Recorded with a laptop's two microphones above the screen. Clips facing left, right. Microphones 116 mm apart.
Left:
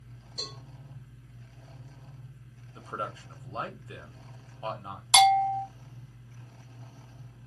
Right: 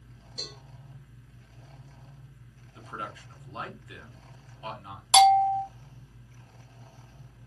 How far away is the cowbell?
About 1.2 m.